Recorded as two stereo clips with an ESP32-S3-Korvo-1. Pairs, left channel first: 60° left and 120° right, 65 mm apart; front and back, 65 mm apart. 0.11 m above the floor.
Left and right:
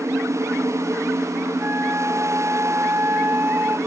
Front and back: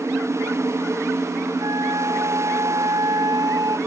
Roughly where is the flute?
Behind.